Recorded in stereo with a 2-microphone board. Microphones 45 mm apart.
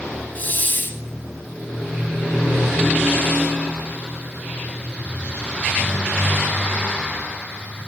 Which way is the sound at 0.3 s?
45° left (ahead or behind).